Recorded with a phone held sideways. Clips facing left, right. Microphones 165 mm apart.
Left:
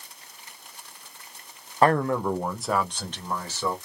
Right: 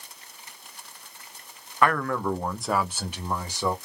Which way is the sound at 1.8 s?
35° left (ahead or behind).